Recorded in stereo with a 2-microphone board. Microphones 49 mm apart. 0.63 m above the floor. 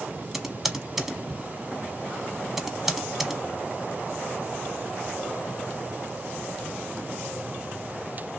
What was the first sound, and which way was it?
Typing on a keyboard, 5° right (ahead or behind).